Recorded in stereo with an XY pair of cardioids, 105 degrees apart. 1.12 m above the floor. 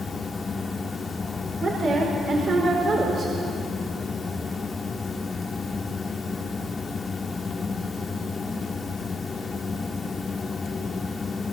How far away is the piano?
No piano in this recording.